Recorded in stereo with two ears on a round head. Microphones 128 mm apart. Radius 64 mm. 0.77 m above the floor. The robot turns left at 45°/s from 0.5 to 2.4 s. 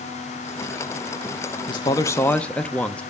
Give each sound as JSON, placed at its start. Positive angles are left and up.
{"t": 1.7, "sound": "a man speaking", "azimuth_deg": 45, "distance_m": 0.6}